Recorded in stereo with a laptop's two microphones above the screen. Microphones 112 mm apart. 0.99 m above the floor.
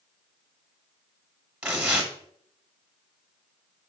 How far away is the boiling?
No boiling in this recording.